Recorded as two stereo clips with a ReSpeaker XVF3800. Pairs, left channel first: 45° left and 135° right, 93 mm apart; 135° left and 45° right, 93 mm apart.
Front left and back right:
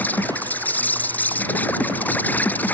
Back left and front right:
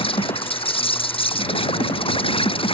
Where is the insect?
115° left.